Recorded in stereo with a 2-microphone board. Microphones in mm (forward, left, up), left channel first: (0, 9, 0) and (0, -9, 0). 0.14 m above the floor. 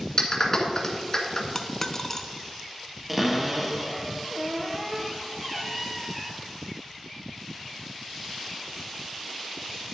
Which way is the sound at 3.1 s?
10° right (ahead or behind).